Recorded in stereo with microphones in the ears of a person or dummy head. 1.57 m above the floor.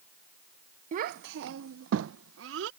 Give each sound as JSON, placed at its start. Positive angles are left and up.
{"t": 0.9, "sound": "a child speaking", "side_deg": -45}